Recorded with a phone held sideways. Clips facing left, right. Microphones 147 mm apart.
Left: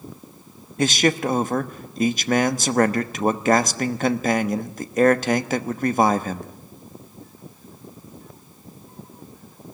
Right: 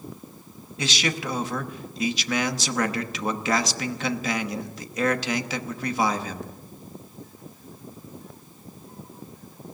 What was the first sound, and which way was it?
A man speaking, 50° left (ahead or behind).